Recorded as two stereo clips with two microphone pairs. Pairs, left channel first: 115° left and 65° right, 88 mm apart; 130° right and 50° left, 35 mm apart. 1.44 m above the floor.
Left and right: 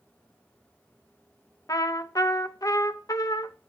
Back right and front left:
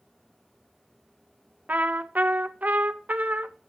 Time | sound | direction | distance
1.7 | a trumpet | 75° left | 0.6 m